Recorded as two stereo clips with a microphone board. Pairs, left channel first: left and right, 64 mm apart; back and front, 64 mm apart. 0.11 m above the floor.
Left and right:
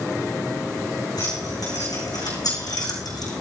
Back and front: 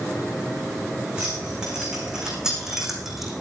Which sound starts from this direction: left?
Keys jangling, at 1.2 s.